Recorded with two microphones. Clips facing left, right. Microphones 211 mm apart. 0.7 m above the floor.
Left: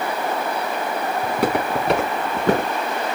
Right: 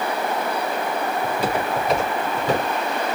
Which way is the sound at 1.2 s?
70° left (ahead or behind).